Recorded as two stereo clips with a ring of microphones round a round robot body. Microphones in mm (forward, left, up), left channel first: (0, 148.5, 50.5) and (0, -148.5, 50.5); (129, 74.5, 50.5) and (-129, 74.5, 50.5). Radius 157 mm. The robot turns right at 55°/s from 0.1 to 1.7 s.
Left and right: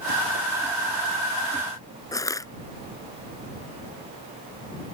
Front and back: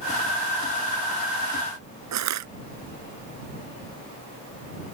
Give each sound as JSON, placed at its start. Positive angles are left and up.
{"t": 2.1, "sound": "crushing", "azimuth_deg": 170}